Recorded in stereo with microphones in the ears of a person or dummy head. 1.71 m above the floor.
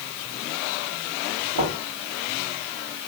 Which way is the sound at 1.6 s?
75° right (ahead or behind).